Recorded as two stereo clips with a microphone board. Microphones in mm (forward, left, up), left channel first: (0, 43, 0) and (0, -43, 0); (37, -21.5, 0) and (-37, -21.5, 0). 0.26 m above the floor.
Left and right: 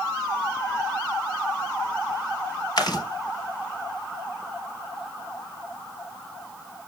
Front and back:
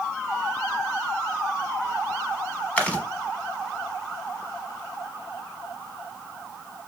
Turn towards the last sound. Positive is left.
turn(degrees=70)